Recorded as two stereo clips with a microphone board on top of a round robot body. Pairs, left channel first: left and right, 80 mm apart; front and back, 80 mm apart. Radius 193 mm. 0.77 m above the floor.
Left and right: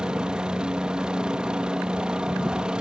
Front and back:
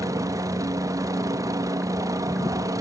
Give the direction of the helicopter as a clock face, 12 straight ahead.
6 o'clock.